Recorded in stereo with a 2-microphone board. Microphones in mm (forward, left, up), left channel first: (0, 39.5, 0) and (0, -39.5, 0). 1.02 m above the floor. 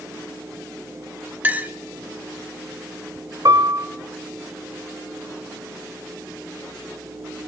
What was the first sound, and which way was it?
A clink, 25° right (ahead or behind).